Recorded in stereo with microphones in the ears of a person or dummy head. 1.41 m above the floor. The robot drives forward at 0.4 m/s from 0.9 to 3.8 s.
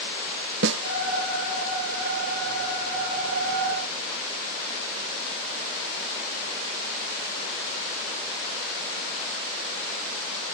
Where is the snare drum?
60° right (ahead or behind), 1.2 m.